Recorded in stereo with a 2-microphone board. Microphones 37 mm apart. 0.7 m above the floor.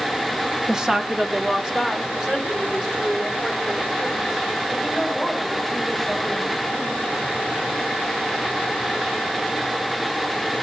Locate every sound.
0.7 s a woman speaking: 15° right (ahead or behind), 0.6 m